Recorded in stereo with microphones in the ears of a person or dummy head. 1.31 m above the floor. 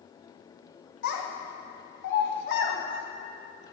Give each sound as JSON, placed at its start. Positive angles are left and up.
{"t": 1.0, "sound": "a child speaking", "side_deg": 65, "distance_m": 1.2}